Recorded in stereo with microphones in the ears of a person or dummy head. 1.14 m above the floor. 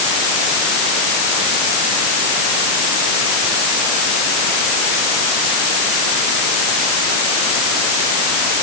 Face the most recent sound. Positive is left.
No sound to turn to.